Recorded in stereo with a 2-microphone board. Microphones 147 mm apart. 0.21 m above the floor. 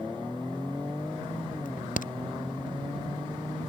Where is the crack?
65° left (ahead or behind).